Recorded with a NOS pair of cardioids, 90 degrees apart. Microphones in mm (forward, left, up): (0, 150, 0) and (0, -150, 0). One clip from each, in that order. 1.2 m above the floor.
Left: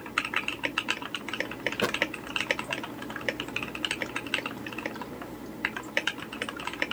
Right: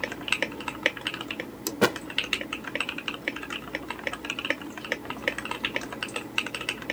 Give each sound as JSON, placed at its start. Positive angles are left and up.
{"t": 1.8, "sound": "a thud", "azimuth_deg": -40}